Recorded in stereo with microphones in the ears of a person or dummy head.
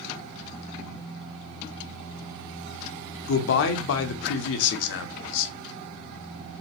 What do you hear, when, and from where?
3.3 s a man speaking: 70° left (ahead or behind), 0.6 m